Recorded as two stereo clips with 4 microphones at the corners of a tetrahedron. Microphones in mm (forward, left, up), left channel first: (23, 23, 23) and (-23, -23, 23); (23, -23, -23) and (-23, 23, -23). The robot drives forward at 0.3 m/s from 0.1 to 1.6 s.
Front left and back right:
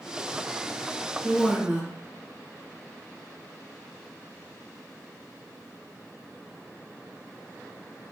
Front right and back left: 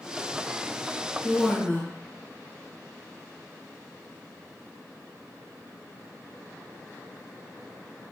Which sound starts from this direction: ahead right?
A woman speaking, at 1.2 s.